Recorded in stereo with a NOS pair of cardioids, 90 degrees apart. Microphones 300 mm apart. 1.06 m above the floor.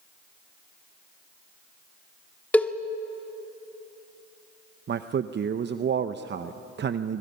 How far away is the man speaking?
About 0.7 m.